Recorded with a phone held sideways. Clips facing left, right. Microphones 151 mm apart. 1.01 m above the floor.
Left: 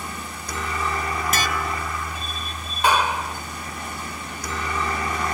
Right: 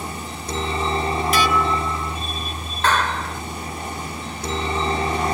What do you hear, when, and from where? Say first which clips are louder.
0.0 s a helicopter: right 3 dB; 30° right (ahead or behind)
1.3 s dishes clattering: right 6 dB; 50° left (ahead or behind)
2.8 s a clap: left 1 dB; 10° left (ahead or behind)